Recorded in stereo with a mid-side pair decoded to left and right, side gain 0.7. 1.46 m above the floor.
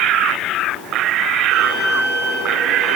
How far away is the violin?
About 7 m.